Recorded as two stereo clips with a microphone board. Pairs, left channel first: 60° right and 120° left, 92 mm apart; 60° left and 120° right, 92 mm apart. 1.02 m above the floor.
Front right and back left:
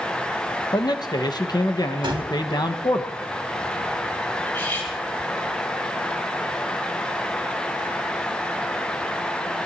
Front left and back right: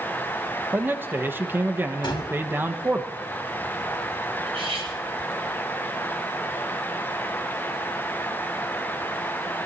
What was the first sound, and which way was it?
A man speaking, 60° right.